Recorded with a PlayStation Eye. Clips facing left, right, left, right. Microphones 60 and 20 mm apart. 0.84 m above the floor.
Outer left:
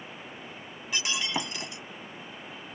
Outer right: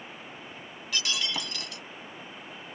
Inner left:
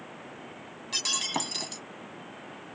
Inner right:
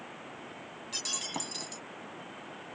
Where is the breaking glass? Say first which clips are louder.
Outer left 1 dB, inner left 7 dB; 25° left (ahead or behind).